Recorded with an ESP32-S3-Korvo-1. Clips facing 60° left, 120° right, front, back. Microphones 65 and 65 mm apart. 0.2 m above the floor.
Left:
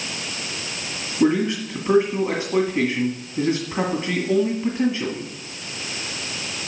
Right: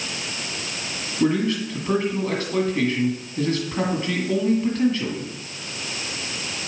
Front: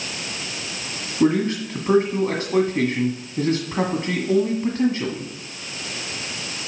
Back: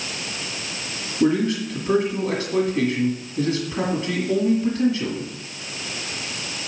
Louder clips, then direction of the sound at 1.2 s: Left 2 dB, front 1 dB; straight ahead.